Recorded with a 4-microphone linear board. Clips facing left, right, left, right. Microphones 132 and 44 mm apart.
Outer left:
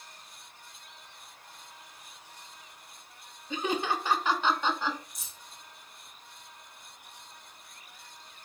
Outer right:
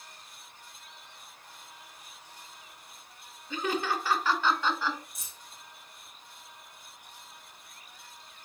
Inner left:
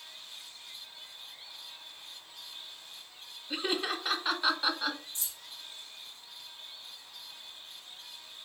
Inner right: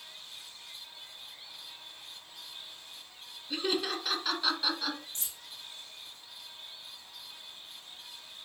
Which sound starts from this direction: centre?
Laughter, at 3.5 s.